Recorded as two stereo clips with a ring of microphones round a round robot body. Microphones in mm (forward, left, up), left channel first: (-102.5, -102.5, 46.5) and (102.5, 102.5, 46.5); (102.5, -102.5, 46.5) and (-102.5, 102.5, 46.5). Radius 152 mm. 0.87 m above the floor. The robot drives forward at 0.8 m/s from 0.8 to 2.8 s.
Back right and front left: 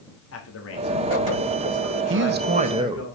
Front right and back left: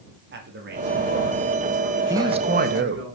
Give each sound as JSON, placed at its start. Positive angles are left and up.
{"t": 0.3, "sound": "a man speaking", "azimuth_deg": -175, "distance_m": 2.5}
{"t": 2.1, "sound": "a man speaking", "azimuth_deg": 60, "distance_m": 1.0}